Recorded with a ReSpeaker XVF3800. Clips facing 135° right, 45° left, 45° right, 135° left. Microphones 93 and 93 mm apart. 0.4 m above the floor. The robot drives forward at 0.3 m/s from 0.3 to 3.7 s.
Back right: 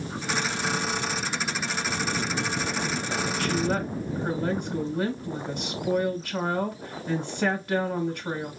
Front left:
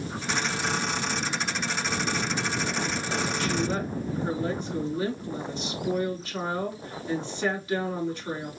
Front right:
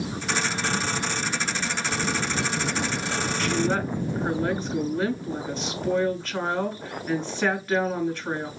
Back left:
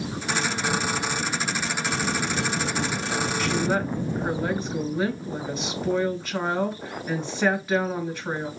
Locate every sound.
3.4 s a woman speaking: 145° right, 2.5 m